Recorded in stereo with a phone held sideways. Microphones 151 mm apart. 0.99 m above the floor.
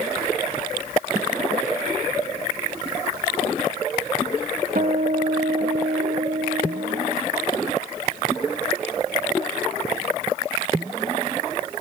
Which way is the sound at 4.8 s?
75° right (ahead or behind).